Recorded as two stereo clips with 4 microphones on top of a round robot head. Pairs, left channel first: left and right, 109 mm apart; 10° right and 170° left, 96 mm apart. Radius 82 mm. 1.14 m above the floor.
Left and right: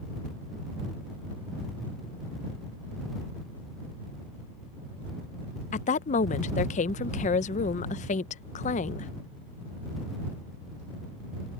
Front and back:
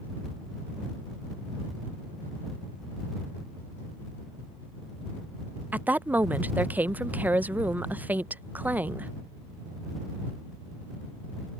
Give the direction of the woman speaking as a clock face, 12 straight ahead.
9 o'clock.